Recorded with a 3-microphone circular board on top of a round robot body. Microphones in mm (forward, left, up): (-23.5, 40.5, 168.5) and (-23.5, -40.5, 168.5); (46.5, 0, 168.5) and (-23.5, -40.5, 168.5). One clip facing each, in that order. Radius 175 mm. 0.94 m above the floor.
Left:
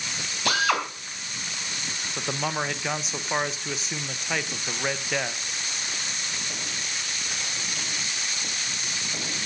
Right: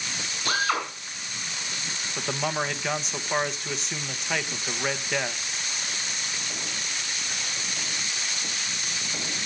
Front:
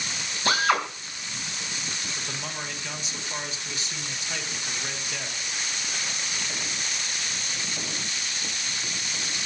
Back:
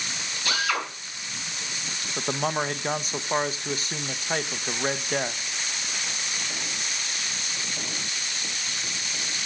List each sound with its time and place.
0.5 s a drill: 80° left, 4 m
2.2 s a man speaking: straight behind, 1.3 m